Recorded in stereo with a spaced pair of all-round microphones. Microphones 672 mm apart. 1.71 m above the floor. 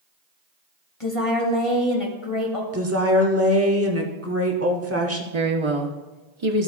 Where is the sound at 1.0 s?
45° left (ahead or behind), 2.5 m.